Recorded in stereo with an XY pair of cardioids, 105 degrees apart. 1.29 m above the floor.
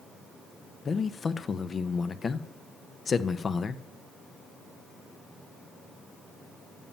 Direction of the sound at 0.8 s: 40° left.